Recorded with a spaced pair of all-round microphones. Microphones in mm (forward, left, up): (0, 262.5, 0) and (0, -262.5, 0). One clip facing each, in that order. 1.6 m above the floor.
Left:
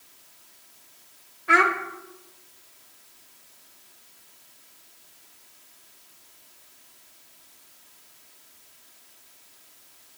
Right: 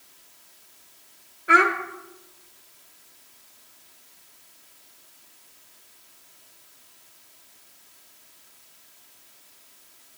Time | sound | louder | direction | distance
1.5 | a child speaking | right 2 dB | 20° left (ahead or behind) | 0.7 m